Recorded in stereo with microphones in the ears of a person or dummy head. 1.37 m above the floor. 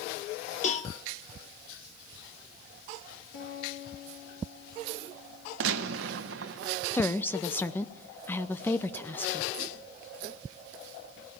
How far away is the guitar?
About 8 m.